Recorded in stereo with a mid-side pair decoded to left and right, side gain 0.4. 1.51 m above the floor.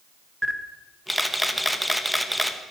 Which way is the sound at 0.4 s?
5° left.